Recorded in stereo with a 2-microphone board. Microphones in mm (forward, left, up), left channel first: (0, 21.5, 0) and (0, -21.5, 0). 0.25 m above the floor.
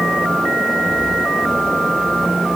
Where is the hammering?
I don't hear hammering.